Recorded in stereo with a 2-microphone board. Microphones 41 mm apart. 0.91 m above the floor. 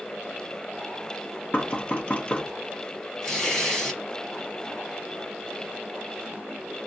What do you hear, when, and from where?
1.5 s knocking: 30° left (ahead or behind), 0.7 m
3.2 s tearing paper: 15° left (ahead or behind), 1.2 m